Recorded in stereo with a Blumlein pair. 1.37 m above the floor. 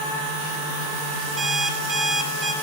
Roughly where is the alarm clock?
Ahead.